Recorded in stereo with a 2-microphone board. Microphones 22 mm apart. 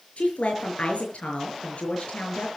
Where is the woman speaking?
75° left (ahead or behind), 6 m.